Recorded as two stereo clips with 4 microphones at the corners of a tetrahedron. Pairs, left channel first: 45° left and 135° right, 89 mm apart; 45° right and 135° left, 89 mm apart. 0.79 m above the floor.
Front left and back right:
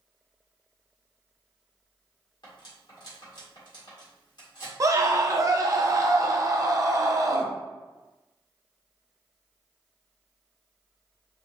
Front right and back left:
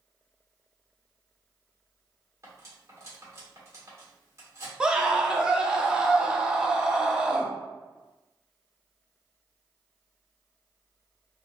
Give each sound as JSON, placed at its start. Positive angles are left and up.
{"t": 2.4, "sound": "cutlery clinking", "azimuth_deg": 80, "distance_m": 1.4}
{"t": 4.8, "sound": "a scream", "azimuth_deg": -150, "distance_m": 0.5}